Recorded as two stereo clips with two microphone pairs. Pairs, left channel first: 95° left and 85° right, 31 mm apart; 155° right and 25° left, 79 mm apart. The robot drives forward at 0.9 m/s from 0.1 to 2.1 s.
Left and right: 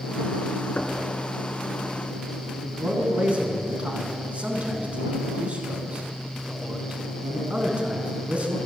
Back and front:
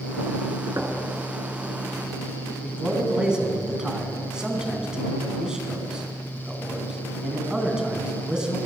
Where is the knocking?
70° left, 1.8 m; by 1.0 s 75° left, 1.7 m.